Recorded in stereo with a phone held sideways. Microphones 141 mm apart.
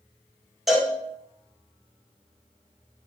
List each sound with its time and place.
0.7 s a cowbell: centre (ahead or behind), 1.8 m